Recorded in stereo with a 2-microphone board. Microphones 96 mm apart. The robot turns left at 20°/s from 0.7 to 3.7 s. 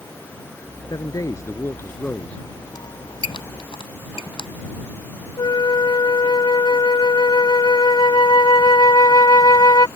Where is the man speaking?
45° left; by 2.4 s 10° left.